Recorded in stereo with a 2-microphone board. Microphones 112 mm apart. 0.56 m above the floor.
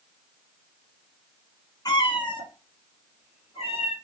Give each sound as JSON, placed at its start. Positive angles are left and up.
{"t": 1.9, "sound": "a cat meowing", "side_deg": 35, "distance_m": 0.6}